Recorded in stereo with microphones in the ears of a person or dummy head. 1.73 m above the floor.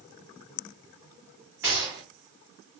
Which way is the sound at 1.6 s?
10° right (ahead or behind).